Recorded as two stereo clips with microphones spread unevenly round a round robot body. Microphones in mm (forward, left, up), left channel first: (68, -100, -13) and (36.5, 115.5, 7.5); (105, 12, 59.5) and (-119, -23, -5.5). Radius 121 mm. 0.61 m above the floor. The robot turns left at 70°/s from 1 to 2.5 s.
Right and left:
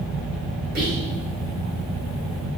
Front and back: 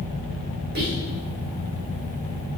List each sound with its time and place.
0.8 s whispering: 155° left, 2 m